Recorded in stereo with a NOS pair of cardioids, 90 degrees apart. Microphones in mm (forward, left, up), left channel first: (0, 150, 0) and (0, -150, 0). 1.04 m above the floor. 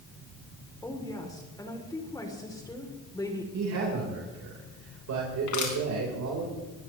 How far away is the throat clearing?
I don't hear throat clearing.